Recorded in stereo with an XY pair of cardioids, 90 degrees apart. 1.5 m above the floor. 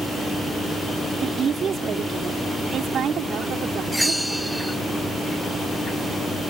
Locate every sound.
1.2 s a woman speaking: 55° right; by 4.7 s 75° right
3.9 s a bell: 5° right